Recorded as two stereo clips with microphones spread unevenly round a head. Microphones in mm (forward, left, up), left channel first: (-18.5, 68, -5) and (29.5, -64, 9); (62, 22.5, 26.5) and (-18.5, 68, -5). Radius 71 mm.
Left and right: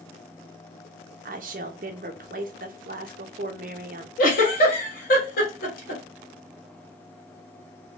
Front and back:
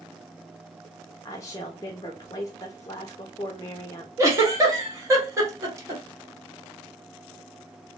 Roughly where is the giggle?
Left.